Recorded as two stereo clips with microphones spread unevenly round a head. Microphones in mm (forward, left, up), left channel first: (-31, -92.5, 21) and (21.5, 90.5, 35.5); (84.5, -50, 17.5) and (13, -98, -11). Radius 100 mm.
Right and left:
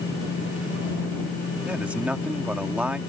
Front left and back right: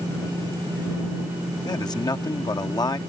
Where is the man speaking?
10° right.